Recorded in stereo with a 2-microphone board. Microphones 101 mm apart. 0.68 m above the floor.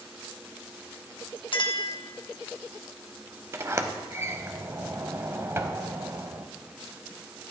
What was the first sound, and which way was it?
A clink, 55° left (ahead or behind).